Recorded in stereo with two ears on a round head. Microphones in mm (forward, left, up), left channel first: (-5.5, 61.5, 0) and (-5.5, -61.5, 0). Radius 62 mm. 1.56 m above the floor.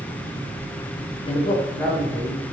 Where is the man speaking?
45° left (ahead or behind), 1.0 m; by 2.4 s 15° right (ahead or behind), 1.9 m.